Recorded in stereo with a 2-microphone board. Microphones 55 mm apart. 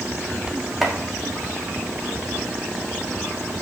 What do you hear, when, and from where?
0.8 s chopping: 5° right (ahead or behind), 1.8 m